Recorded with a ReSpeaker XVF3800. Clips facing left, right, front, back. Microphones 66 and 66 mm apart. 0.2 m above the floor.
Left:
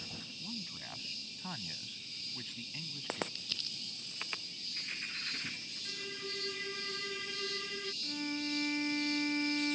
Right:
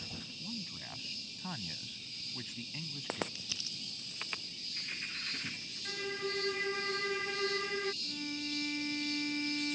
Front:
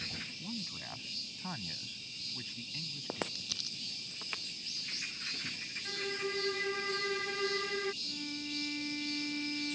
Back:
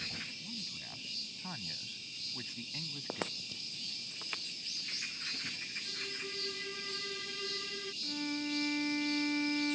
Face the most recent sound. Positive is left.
turn(degrees=140)